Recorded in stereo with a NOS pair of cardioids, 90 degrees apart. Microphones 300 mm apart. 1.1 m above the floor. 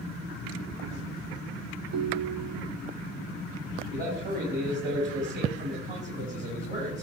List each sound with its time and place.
1.9 s a ringtone: 60° right, 0.6 m
3.9 s a man speaking: 40° right, 5.5 m